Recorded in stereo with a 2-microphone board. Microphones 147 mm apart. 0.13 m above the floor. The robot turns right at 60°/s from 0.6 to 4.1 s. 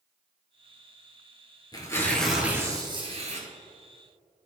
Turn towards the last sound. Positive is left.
turn(degrees=-70)